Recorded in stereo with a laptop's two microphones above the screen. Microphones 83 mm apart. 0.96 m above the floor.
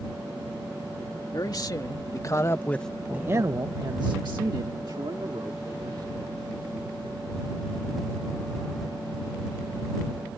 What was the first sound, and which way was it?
A man speaking, 55° left (ahead or behind).